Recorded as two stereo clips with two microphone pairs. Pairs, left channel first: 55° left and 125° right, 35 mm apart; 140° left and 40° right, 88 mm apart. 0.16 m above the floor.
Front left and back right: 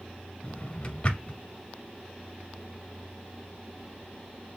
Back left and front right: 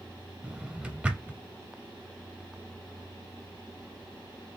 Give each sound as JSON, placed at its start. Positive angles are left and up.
{"t": 0.4, "sound": "a drawer", "azimuth_deg": 25, "distance_m": 0.8}